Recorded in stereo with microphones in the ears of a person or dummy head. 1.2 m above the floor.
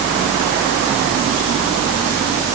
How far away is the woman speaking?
No woman speaking in this recording.